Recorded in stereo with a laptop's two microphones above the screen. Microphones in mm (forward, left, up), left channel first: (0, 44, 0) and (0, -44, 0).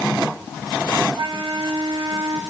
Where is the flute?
80° right, 3 m.